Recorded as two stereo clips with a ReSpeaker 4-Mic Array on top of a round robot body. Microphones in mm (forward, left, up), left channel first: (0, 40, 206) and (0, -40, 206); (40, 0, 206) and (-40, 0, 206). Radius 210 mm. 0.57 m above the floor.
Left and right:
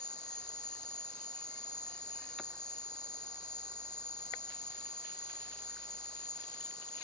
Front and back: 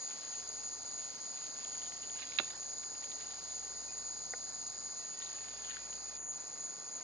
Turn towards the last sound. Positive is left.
turn(degrees=55)